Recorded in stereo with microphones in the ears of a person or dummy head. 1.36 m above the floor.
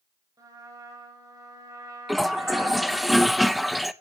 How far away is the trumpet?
About 7.5 m.